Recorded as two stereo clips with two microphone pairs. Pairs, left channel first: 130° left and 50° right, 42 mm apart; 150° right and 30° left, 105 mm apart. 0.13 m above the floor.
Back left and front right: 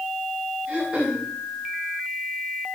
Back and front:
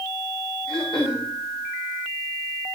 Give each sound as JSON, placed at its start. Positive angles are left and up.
{"t": 0.7, "sound": "throat clearing", "azimuth_deg": -110, "distance_m": 9.5}